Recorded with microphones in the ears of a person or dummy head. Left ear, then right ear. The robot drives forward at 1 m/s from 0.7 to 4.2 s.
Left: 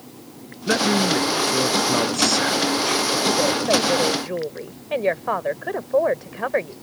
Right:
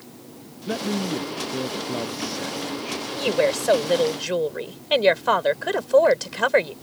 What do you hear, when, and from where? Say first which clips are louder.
0.7 s a man speaking: left 8 dB; 55° left (ahead or behind); by 3.1 s 45° left (ahead or behind)
3.2 s a woman speaking: left 1 dB; 70° right (ahead or behind); by 6.7 s 80° right